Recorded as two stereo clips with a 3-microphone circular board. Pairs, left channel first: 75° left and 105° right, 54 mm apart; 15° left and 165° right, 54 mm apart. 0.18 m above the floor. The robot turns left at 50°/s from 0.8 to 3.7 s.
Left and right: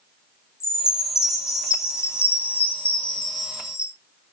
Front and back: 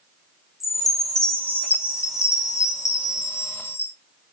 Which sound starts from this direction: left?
A chime, at 0.6 s.